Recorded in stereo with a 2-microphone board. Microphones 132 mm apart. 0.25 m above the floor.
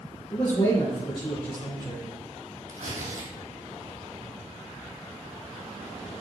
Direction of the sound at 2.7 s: 75° right (ahead or behind).